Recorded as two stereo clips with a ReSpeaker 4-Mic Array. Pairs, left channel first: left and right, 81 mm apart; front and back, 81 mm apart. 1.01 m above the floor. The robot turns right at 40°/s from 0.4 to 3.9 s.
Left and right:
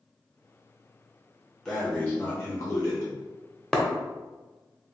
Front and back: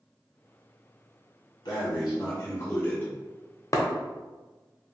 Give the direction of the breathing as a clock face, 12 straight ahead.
12 o'clock.